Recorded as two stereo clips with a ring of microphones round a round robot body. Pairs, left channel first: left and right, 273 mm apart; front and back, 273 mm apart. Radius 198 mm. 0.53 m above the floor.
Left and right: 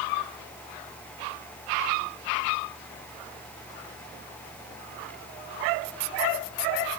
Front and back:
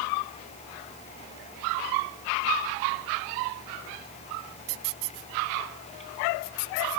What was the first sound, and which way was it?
Only background noise.